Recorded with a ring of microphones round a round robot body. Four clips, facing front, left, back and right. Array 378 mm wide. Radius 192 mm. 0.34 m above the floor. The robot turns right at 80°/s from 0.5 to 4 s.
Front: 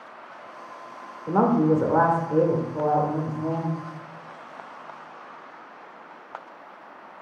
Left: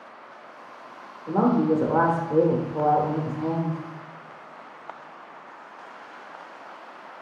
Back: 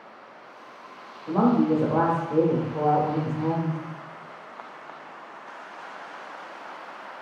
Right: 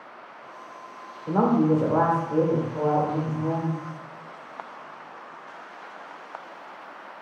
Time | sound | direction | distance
1.3 | a woman speaking | 10° right | 0.9 m